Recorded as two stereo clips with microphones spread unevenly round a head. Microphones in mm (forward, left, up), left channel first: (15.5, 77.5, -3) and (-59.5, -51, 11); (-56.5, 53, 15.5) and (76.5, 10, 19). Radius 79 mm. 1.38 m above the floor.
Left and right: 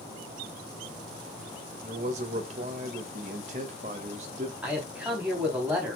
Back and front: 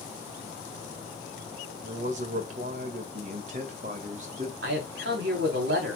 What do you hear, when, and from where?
1.8 s a man speaking: 65° right, 1.9 m
4.6 s a man speaking: 35° right, 3.5 m